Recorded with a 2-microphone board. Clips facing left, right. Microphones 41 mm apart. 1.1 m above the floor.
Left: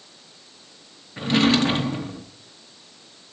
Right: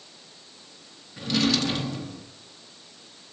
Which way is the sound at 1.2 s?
40° left (ahead or behind).